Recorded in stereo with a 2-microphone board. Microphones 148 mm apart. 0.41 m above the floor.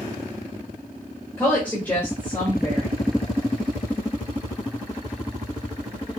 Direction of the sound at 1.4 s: 15° left (ahead or behind).